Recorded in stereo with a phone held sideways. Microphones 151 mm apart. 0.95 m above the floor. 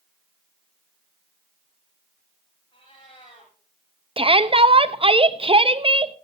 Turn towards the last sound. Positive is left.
turn(degrees=-40)  # may be behind; listen again after turning